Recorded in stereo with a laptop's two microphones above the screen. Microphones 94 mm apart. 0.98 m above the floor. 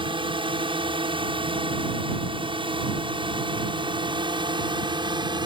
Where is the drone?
60° right (ahead or behind); by 5.5 s 55° right (ahead or behind).